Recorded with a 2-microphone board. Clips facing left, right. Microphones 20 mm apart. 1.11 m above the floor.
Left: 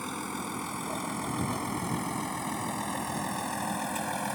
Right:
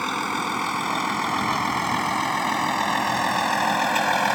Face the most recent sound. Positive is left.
turn(degrees=-45)  # may be behind; listen again after turning